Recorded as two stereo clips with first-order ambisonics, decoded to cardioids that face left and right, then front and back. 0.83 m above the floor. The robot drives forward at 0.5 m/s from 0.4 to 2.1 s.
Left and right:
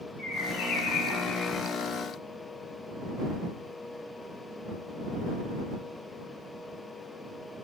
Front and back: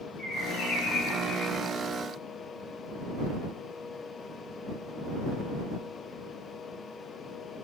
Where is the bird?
50° left, 3 m; by 1.8 s 65° left, 2.5 m.